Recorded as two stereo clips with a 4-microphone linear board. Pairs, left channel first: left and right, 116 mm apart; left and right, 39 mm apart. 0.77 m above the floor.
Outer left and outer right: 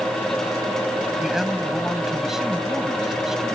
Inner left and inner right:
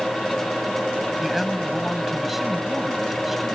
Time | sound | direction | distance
1.2 | a man speaking | 5° right (ahead or behind) | ?